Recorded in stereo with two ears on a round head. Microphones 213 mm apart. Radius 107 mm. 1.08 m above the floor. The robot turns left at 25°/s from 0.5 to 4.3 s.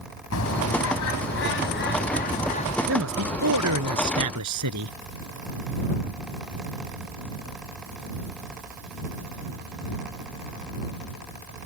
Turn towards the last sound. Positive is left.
turn(degrees=-90)